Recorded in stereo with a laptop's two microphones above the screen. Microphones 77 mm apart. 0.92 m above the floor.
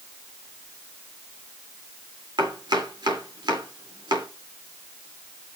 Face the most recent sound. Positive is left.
turn(degrees=-75)  # may be behind; listen again after turning